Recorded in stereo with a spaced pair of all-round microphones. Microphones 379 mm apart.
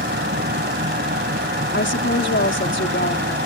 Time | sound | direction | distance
0.0 | a fan | 25° right (ahead or behind) | ?
1.7 | a woman speaking | 30° left (ahead or behind) | ?